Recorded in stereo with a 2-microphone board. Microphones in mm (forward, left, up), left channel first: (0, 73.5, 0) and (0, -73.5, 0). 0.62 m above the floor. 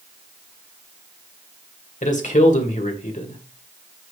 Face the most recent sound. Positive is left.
turn(degrees=65)  # may be behind; listen again after turning